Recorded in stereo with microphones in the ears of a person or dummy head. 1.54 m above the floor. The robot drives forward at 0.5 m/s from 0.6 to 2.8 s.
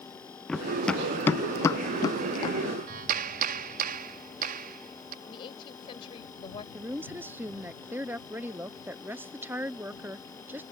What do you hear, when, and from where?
0.5 s running footsteps: 5° left (ahead or behind); by 2.6 s 30° left (ahead or behind)
2.9 s a clap: 50° right (ahead or behind)
5.2 s a woman speaking: 30° left (ahead or behind)
6.7 s a woman speaking: 5° right (ahead or behind)